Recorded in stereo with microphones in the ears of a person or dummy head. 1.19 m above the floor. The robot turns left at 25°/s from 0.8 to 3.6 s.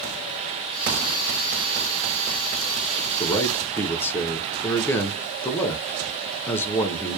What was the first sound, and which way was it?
A man speaking, 15° left (ahead or behind).